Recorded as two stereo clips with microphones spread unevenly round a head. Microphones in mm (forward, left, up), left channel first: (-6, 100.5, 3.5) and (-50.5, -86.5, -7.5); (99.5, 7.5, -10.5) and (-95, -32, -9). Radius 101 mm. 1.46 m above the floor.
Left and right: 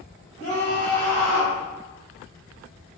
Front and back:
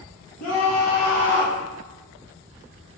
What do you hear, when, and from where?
0.4 s a scream: 10° left, 1.4 m; by 1.6 s 65° left, 0.8 m